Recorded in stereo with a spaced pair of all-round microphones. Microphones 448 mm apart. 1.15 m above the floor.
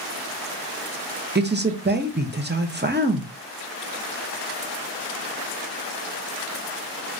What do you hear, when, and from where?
1.4 s a man speaking: 25° right (ahead or behind), 0.5 m